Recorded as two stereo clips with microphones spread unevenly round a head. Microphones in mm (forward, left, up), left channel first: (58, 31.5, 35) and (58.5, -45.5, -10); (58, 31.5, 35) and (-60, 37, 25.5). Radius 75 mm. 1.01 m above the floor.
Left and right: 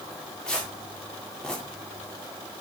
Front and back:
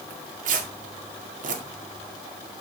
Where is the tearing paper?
175° left, 1.9 m.